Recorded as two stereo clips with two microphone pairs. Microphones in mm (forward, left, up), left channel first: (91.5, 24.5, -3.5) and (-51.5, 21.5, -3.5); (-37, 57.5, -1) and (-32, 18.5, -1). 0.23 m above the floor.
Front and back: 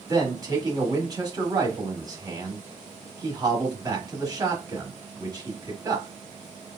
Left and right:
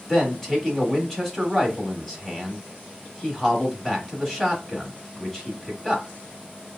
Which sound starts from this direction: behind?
A man speaking, at 0.1 s.